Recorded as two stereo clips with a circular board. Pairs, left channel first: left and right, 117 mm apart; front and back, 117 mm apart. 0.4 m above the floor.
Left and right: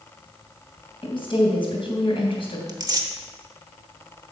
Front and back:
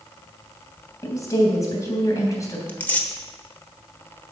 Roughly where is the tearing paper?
Ahead right.